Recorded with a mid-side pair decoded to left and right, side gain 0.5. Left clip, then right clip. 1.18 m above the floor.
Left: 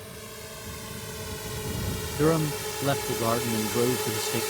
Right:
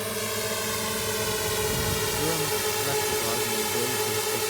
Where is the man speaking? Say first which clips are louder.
Left 1 dB; 50° left.